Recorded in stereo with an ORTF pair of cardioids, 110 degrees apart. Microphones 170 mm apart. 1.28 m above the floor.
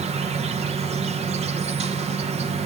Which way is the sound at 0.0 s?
40° right.